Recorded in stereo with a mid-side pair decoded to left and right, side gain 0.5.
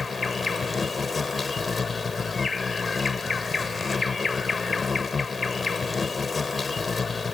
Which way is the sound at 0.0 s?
25° left.